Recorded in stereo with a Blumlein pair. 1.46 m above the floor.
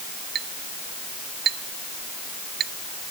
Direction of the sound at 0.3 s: 30° right.